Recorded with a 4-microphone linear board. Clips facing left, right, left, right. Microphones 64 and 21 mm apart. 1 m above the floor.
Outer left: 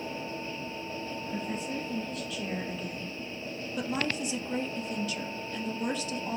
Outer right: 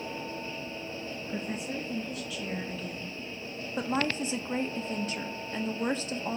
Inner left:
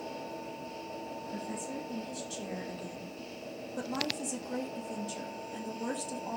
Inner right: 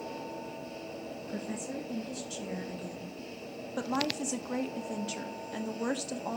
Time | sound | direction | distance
1.2 | a woman speaking | 30° right (ahead or behind) | 1.6 m
3.8 | a woman speaking | 35° right (ahead or behind) | 1.4 m